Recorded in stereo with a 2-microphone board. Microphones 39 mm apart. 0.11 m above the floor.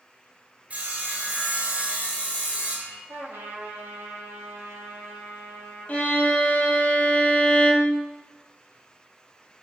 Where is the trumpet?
50° right (ahead or behind), 0.6 m.